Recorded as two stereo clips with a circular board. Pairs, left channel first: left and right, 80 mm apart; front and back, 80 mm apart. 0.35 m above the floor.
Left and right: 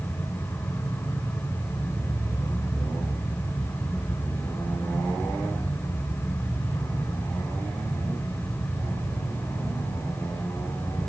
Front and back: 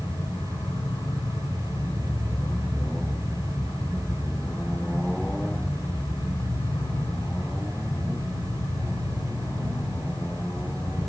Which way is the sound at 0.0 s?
35° left.